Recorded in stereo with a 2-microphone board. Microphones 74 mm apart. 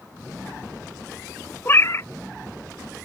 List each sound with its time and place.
1.6 s a cat meowing: 35° left (ahead or behind)